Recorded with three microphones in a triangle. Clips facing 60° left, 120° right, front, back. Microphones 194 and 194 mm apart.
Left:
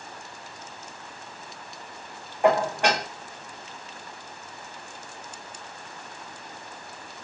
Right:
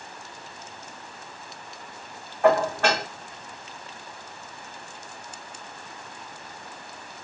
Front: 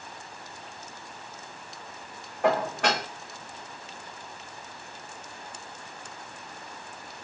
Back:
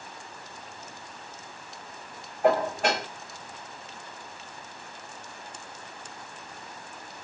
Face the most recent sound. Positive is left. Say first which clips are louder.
# right 1 dB, back 2 dB
turn(degrees=-15)